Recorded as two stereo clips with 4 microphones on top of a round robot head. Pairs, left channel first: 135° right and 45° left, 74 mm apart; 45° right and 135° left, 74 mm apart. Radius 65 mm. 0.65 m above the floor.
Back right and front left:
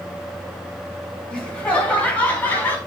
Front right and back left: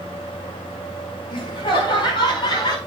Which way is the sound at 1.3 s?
60° right.